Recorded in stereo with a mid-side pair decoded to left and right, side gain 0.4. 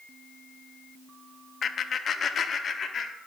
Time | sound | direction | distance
1.6 | laughter | 60° left | 0.8 m